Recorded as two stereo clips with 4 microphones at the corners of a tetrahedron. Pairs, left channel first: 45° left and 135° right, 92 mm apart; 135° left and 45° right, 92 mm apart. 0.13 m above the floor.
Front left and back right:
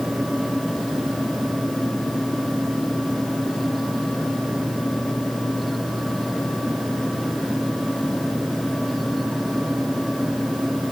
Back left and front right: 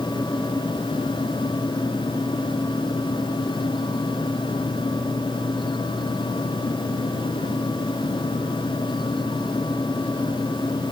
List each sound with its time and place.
Only background noise.